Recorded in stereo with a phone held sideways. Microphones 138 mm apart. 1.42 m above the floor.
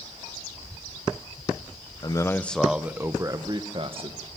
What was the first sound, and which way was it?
A man speaking, 30° left (ahead or behind).